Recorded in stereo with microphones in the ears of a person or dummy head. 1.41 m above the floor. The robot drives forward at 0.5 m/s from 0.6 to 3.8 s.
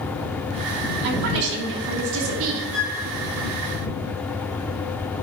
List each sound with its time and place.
1.0 s a woman speaking: 55° right (ahead or behind), 2.5 m; by 2.6 s 70° right (ahead or behind), 2 m
2.7 s a flute: 5° right (ahead or behind), 3 m